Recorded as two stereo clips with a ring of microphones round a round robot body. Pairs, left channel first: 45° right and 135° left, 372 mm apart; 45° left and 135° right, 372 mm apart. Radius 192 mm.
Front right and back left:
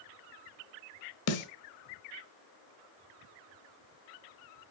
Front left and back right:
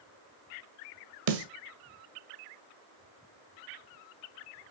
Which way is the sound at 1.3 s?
95° right.